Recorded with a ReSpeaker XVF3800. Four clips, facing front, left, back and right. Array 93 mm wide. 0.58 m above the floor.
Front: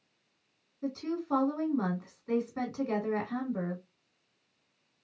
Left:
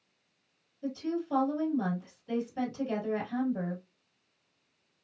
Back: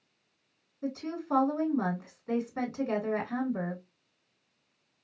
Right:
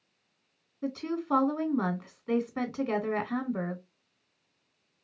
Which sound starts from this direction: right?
A woman speaking, at 0.8 s.